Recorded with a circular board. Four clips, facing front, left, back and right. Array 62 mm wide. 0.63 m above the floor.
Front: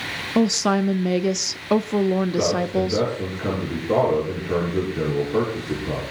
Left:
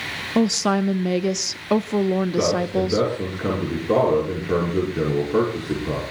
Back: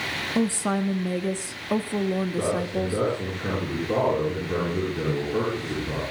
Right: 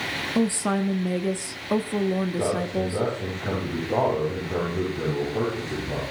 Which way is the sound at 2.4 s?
80° left.